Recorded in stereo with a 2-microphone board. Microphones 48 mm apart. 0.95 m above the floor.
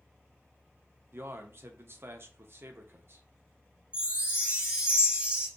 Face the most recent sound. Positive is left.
turn(degrees=-25)  # may be behind; listen again after turning